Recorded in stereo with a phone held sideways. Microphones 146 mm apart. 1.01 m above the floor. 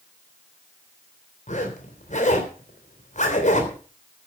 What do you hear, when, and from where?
1.5 s a zipper: 55° left (ahead or behind), 3.5 m